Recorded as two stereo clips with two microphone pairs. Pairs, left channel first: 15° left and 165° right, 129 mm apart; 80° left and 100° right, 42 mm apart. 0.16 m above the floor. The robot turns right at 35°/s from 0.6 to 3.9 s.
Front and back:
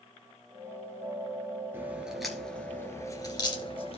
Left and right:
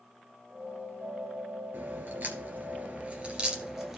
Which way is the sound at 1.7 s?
95° right.